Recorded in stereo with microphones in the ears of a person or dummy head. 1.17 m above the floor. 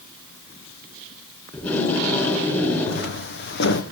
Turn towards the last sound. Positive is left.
turn(degrees=60)  # may be behind; listen again after turning